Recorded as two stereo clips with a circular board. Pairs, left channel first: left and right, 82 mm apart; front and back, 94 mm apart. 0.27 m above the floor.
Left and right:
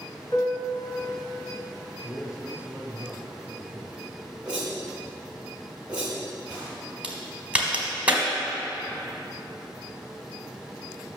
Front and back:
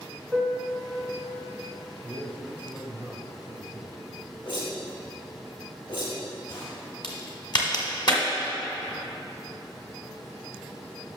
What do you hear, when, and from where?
0.3 s a piano: 85° left, 2 m
2.0 s a man speaking: 45° right, 1.2 m
4.4 s a whoosh: 15° right, 2.5 m
7.0 s a crack: 20° right, 1.3 m